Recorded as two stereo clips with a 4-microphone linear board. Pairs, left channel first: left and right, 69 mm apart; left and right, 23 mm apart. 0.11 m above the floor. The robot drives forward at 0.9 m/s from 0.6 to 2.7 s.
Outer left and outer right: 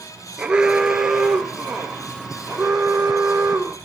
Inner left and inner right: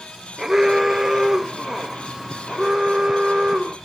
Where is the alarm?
10° right (ahead or behind), 1.0 m; by 3.8 s 5° right (ahead or behind), 2.5 m.